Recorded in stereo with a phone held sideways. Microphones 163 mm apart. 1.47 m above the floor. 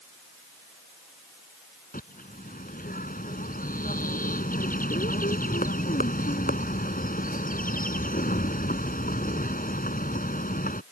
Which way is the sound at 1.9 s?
55° left (ahead or behind).